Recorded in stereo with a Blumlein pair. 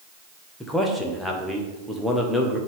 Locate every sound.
0.6 s a man speaking: 5° left, 1.1 m